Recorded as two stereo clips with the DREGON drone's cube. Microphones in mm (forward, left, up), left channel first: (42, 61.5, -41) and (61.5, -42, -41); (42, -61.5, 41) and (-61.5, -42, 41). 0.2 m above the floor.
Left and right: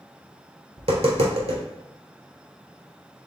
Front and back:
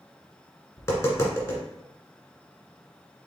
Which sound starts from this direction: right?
Tapping, at 0.8 s.